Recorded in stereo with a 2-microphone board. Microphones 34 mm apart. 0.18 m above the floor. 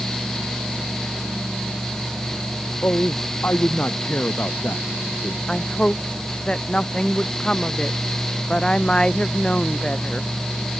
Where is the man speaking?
65° left (ahead or behind); by 5.4 s 75° left (ahead or behind).